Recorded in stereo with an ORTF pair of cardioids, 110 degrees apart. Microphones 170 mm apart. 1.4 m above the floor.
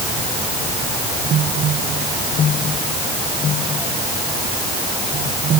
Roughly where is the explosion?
I don't hear an explosion.